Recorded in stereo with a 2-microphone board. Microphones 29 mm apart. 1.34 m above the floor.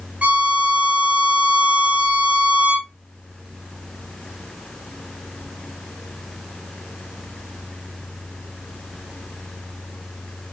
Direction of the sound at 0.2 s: 40° right (ahead or behind).